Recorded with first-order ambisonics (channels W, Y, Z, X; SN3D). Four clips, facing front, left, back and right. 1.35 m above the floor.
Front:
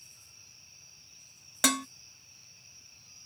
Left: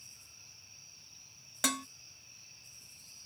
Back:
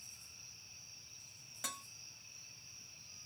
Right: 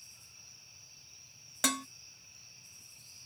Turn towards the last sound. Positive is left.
turn(degrees=-5)